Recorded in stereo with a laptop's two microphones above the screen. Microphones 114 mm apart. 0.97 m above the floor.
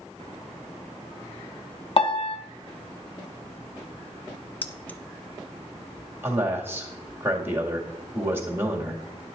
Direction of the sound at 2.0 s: 50° left (ahead or behind).